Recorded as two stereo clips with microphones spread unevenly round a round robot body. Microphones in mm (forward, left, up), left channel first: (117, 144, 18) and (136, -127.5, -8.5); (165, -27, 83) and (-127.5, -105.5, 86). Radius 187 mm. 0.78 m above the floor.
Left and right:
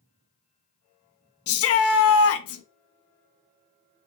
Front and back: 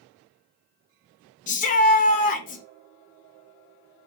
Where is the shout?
75° left, 0.5 m.